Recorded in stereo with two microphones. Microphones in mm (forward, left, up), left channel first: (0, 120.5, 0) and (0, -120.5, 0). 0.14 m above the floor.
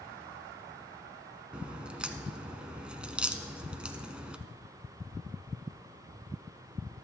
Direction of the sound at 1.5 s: 5° right (ahead or behind).